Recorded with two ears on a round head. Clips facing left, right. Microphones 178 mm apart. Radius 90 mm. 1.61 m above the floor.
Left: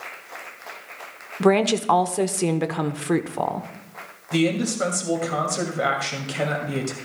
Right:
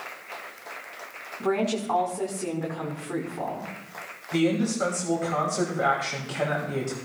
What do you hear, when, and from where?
1.4 s a woman speaking: 80° left, 1.0 m
4.3 s a man speaking: 40° left (ahead or behind), 2.5 m